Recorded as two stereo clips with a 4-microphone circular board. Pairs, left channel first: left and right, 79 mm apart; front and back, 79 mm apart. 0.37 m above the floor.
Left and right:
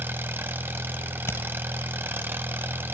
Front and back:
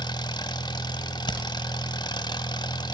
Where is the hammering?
30° left, 2.5 m.